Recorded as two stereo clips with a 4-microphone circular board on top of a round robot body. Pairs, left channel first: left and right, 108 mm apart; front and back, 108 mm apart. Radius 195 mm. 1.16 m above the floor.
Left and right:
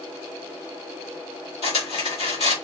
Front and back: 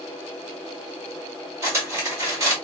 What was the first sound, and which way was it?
Cutlery clinking, 115° left.